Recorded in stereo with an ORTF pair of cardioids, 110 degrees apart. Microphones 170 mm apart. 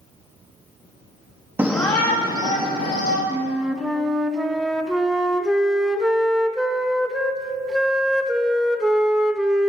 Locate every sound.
1.6 s a shout: 15° right, 0.7 m; by 3.2 s 65° left, 2.5 m
3.3 s a flute: 5° right, 0.5 m